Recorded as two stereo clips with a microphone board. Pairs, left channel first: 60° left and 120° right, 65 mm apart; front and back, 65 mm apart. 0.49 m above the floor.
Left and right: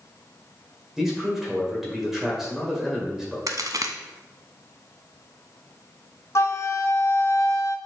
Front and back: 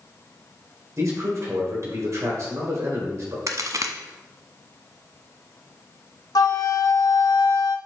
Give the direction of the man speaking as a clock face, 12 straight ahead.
7 o'clock.